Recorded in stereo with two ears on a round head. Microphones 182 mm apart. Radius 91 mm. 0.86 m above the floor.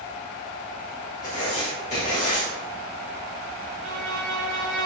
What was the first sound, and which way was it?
Writing, 35° left (ahead or behind).